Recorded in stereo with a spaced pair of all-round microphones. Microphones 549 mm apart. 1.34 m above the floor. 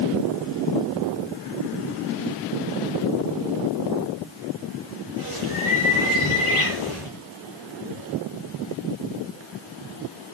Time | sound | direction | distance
5.2 | a bird | 60° left (ahead or behind) | 9 m